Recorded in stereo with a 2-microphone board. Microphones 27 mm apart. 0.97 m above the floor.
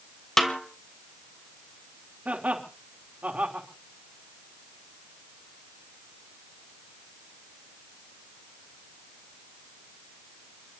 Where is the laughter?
65° right (ahead or behind), 3 m.